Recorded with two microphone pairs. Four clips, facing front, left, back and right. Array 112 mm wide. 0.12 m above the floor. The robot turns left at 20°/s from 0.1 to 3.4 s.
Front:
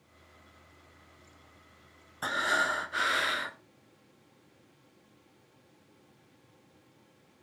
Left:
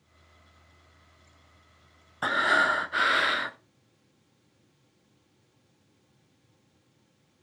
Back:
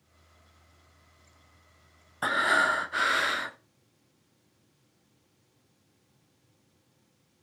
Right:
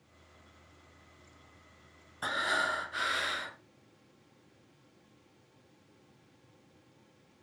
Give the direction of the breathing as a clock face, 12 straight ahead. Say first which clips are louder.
Left 8 dB, back 4 dB; 8 o'clock.